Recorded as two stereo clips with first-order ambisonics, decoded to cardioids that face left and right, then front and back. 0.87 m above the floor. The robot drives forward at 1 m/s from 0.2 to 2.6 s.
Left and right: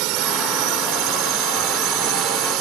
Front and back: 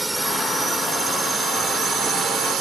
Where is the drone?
100° right; by 2.6 s 125° right.